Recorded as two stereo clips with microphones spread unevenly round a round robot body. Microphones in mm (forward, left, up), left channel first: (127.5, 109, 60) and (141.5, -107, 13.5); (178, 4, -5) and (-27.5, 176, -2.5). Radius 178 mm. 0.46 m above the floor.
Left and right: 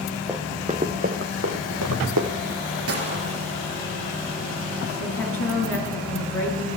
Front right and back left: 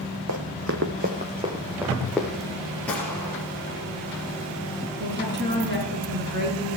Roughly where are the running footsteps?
Behind.